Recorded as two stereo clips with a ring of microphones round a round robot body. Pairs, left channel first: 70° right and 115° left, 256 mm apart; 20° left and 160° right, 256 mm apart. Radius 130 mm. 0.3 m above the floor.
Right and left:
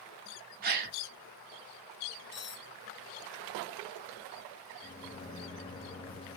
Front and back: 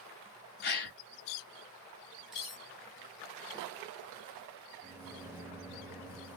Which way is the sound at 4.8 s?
95° right.